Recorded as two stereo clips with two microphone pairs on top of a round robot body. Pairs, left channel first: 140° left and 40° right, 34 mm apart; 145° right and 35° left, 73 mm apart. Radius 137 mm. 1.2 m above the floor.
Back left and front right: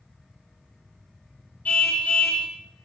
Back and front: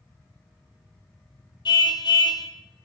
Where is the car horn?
170° right, 2 m.